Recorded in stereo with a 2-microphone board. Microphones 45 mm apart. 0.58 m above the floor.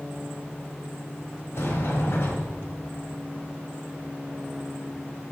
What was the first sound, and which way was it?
A sliding door, 70° left (ahead or behind).